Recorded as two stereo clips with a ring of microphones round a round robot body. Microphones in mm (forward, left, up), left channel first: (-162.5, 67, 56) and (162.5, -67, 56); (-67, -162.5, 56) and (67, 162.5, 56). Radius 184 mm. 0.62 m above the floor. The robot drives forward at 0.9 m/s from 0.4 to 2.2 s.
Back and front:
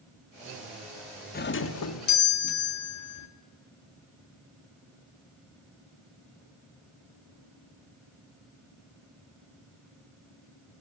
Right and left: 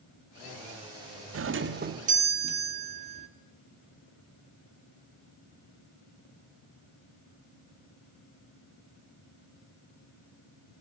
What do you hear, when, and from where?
1.3 s a doorbell: 100° left, 1.3 m; by 3.3 s 135° left, 1.6 m